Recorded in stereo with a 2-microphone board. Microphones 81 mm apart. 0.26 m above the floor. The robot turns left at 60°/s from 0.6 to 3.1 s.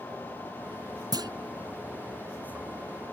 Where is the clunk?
55° right (ahead or behind); by 1.3 s 60° right (ahead or behind).